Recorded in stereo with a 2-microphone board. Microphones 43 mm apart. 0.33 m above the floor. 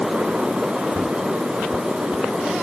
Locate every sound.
Only background noise.